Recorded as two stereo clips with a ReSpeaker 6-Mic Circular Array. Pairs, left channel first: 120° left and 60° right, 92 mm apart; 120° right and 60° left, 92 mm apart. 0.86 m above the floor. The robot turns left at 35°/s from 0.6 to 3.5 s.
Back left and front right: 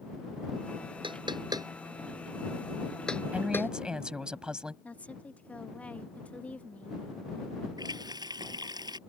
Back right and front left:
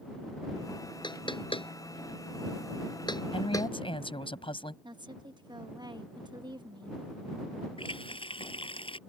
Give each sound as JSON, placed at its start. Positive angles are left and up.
{"t": 1.0, "sound": "knocking", "azimuth_deg": -85}
{"t": 3.3, "sound": "a woman speaking", "azimuth_deg": -135}
{"t": 4.8, "sound": "a woman speaking", "azimuth_deg": 50}
{"t": 7.8, "sound": "a running tap", "azimuth_deg": -100}